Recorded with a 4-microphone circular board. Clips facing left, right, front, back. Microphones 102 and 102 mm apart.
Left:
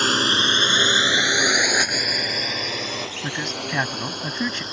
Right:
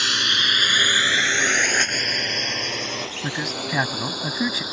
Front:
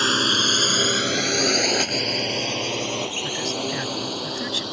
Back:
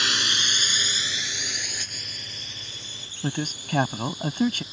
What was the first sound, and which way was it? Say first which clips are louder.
A drone: left 5 dB, front 7 dB; 45° left.